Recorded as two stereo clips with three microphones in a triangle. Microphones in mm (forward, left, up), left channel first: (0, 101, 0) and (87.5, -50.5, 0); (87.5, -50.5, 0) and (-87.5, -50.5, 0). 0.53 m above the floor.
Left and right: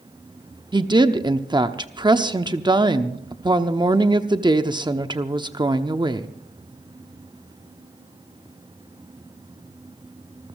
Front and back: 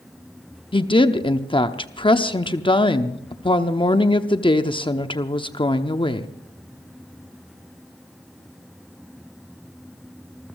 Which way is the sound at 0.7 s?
25° right.